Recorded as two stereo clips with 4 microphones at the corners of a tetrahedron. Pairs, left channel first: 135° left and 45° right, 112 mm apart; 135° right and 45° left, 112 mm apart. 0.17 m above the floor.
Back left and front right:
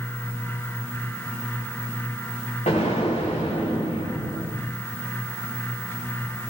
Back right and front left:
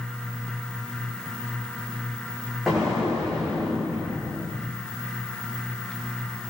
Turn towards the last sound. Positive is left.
turn(degrees=135)